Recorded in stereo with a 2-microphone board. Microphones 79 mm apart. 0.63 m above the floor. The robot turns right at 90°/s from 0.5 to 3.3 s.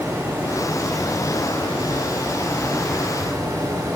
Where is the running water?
25° right, 1.3 m; by 4.0 s 130° right, 1.3 m.